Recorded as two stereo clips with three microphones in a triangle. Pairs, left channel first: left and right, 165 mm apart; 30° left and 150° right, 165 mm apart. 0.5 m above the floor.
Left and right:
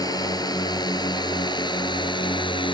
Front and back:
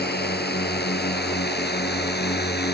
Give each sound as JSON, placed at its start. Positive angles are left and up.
{"t": 0.0, "sound": "a drone", "azimuth_deg": 25}